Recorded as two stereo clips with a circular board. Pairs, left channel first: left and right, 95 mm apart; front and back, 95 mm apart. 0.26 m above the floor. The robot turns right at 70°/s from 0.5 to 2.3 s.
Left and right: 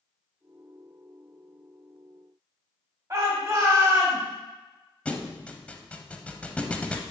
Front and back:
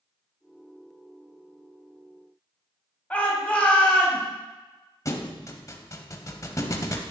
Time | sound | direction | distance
3.1 | a shout | 65° right | 1.9 m
5.0 | a thud | 20° left | 0.6 m